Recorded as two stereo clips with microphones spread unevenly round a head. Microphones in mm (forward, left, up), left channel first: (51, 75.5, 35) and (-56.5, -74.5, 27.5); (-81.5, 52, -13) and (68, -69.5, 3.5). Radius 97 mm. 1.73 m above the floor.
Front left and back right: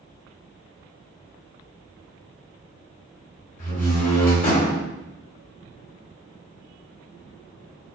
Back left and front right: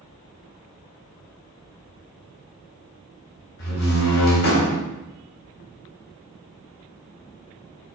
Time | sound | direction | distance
3.6 | a door slam | 100° left | 3.5 m